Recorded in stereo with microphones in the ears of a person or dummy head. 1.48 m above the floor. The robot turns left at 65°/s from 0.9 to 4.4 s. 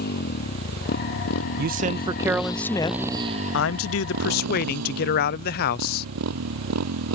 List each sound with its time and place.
0.0 s a motorcycle: 125° left; by 7.2 s 100° right
1.6 s a man speaking: 120° right; by 6.1 s 55° left